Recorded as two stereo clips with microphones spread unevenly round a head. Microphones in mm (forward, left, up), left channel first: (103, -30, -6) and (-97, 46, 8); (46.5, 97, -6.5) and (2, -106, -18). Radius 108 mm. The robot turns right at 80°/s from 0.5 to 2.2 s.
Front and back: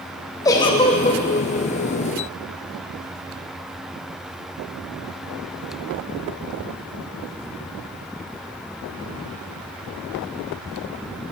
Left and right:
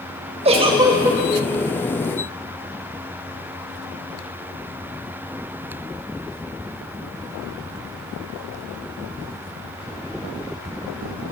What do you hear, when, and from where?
0.5 s a giggle: 80° right, 1.1 m; by 1.2 s 25° right, 1.1 m